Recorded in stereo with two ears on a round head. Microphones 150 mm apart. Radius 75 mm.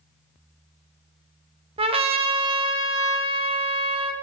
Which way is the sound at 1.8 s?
35° right (ahead or behind).